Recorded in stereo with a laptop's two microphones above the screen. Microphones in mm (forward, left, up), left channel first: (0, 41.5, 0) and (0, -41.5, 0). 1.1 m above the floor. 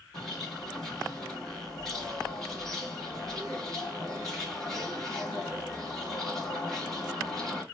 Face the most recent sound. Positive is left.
turn(degrees=5)  # may be behind; listen again after turning